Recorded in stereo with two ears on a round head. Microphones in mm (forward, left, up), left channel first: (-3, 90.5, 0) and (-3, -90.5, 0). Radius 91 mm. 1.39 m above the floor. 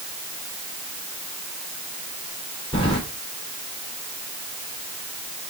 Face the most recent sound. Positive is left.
turn(degrees=25)  # may be behind; listen again after turning